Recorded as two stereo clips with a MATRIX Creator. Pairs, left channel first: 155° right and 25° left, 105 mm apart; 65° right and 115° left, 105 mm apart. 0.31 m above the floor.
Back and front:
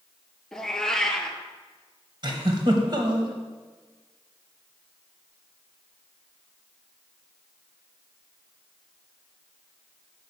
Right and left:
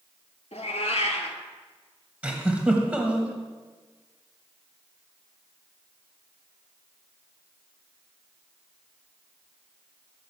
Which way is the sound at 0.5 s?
70° right.